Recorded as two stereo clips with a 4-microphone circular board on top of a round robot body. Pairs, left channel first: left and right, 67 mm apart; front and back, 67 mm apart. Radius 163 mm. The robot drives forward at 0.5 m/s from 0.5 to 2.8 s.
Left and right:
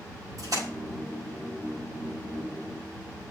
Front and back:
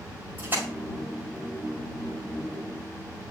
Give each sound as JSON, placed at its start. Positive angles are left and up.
{"t": 0.4, "sound": "a splash", "azimuth_deg": -120, "distance_m": 7.0}